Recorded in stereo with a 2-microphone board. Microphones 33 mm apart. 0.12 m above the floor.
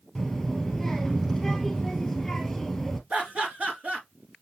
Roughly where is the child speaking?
Centre.